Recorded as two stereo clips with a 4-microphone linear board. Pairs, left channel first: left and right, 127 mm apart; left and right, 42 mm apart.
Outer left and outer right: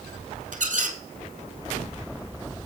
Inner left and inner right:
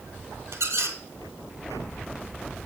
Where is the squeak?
75° right (ahead or behind), 1.2 m.